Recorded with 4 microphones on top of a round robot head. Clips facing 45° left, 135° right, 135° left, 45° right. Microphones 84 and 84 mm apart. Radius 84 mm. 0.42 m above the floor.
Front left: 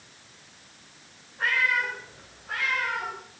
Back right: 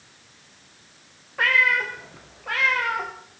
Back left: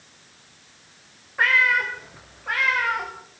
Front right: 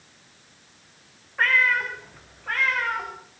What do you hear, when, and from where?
1.4 s a cat meowing: 140° right, 5 m